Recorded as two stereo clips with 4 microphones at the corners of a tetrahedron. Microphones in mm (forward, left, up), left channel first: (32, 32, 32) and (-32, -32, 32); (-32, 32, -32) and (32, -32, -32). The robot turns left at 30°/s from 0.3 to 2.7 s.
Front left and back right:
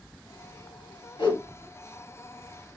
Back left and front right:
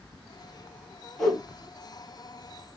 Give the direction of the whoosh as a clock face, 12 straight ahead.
10 o'clock.